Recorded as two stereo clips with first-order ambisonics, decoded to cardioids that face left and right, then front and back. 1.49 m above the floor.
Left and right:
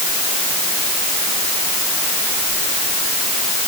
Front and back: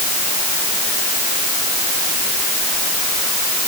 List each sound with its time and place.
Only background noise.